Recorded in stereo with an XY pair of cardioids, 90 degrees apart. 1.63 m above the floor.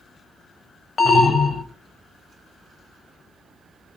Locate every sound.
1.0 s an alarm: 40° left, 0.7 m